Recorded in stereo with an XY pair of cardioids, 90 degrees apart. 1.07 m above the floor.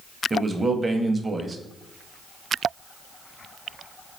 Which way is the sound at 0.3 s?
25° right.